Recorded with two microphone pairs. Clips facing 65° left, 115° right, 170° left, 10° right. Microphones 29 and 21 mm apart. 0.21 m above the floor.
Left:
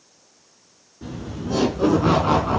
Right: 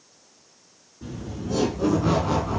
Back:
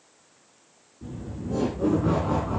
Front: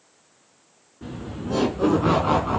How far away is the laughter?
About 2.5 m.